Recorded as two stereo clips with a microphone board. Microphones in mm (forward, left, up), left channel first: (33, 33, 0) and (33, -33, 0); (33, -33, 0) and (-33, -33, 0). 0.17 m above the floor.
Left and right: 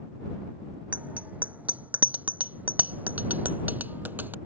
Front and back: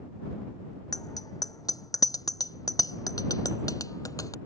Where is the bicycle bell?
20° right; by 4.4 s 30° right.